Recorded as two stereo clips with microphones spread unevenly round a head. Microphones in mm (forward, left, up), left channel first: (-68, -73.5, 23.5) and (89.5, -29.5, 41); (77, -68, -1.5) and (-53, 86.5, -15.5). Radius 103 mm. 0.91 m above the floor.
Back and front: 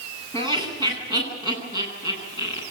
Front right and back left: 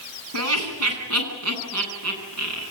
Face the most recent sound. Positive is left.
turn(degrees=130)